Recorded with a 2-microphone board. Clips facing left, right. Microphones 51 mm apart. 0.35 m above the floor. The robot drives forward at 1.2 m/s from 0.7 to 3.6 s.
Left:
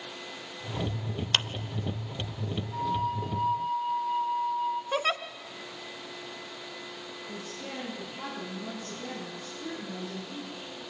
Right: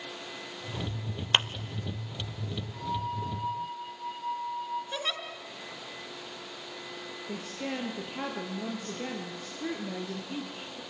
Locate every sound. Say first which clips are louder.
1.3 s a clap: right 2 dB; 25° right (ahead or behind), 0.6 m; by 1.5 s 20° right (ahead or behind), 0.7 m
2.7 s a flute: left 4 dB; 50° left (ahead or behind), 3 m; by 4.8 s 55° left (ahead or behind), 2.5 m
4.9 s a giggle: left 6 dB; 65° left (ahead or behind), 1.4 m
7.3 s a woman speaking: right 5 dB; 55° right (ahead or behind), 8 m